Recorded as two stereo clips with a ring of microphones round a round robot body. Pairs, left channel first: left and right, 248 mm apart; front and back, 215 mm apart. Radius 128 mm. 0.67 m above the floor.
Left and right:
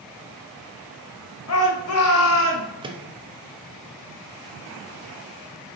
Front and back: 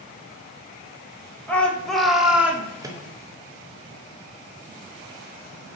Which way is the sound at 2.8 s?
130° right.